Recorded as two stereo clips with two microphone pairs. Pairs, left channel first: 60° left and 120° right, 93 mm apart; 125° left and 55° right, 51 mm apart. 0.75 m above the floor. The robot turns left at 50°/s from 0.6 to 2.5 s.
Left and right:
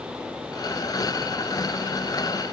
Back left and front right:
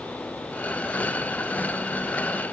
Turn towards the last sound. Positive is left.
No sound to turn to.